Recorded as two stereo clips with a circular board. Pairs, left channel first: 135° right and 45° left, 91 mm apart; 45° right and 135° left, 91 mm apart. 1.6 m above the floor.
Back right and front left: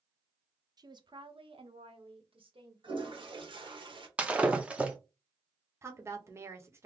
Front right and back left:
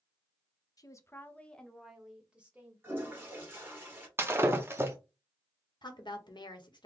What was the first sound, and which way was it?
A woman speaking, straight ahead.